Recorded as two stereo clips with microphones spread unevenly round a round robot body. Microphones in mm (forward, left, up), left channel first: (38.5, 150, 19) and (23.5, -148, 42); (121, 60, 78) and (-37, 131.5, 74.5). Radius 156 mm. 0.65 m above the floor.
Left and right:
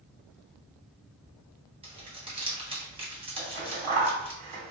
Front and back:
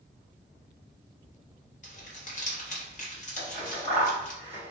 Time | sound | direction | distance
1.8 | crumpling | 25° right | 1.3 m
3.4 | scissors | 95° right | 1.7 m